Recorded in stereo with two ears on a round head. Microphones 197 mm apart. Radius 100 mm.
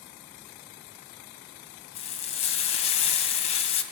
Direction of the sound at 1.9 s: 30° left (ahead or behind).